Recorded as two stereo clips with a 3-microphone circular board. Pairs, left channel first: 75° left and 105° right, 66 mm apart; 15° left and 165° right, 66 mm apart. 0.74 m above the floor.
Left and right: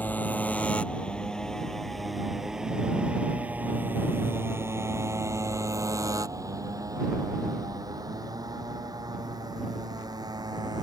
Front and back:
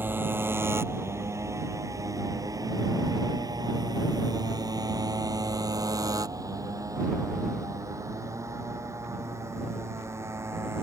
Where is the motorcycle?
140° left; by 10.8 s 115° right.